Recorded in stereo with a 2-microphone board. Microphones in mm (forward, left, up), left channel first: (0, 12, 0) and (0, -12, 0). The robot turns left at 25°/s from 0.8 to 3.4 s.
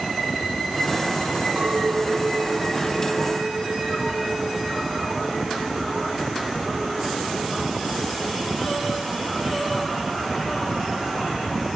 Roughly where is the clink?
Right.